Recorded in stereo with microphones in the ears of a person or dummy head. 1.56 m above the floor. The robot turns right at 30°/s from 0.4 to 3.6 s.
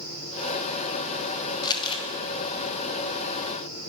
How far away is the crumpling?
About 1.7 m.